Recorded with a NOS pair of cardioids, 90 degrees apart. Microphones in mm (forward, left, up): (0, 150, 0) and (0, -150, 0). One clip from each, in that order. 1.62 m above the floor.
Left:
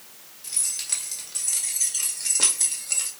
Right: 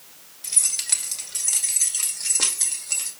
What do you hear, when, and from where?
0.4 s keys jangling: 45° right, 2.5 m; by 3.1 s straight ahead, 1.9 m